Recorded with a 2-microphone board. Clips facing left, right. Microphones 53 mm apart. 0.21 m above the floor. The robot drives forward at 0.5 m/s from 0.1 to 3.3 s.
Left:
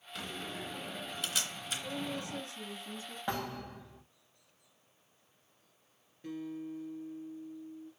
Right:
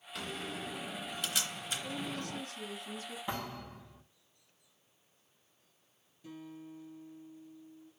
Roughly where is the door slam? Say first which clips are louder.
Right 1 dB; centre.